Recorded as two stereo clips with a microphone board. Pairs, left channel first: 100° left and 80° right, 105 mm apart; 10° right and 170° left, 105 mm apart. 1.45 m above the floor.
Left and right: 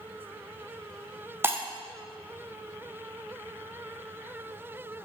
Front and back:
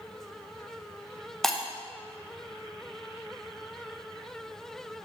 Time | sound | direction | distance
1.4 | breaking glass | 95° right | 0.6 m